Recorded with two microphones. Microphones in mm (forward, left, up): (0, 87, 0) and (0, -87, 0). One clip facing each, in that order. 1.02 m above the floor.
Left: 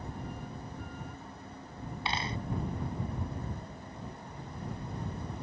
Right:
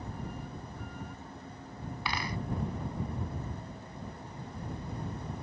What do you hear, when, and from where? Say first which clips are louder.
2.0 s a dropped coin: left 1 dB; 25° left (ahead or behind)